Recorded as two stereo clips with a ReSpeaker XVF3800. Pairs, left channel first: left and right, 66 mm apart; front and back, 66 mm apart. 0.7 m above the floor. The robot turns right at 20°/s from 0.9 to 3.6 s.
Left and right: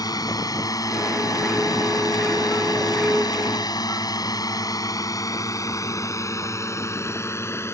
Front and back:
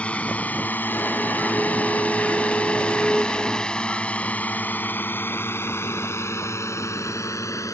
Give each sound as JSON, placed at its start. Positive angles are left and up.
{"t": 0.0, "sound": "a drone", "azimuth_deg": 70}